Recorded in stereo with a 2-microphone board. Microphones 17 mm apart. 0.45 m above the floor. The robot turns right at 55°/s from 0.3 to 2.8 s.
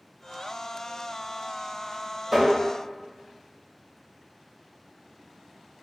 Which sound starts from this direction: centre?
Tapping, at 2.3 s.